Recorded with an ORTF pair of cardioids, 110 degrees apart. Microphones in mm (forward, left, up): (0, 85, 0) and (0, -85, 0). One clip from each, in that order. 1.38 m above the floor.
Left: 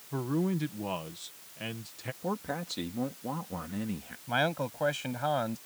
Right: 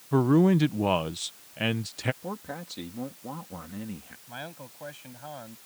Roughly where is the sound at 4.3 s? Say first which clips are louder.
Left 12 dB; ahead left.